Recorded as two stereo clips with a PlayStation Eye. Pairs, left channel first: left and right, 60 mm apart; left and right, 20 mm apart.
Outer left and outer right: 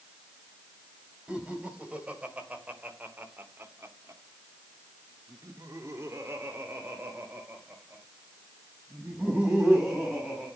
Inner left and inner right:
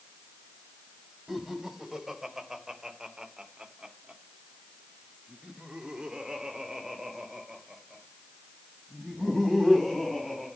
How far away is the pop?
No pop in this recording.